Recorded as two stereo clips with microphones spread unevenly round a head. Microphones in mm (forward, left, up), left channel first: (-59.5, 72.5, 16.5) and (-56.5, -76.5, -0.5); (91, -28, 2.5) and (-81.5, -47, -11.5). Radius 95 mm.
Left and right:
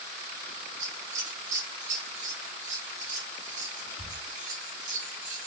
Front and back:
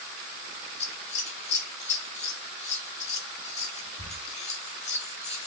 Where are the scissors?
40° right, 0.8 m.